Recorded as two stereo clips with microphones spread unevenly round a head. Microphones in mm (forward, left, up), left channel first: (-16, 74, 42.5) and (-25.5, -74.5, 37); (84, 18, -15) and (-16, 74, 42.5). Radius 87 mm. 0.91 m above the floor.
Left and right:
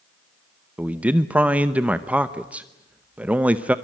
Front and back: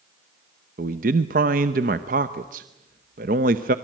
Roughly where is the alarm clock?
I don't hear an alarm clock.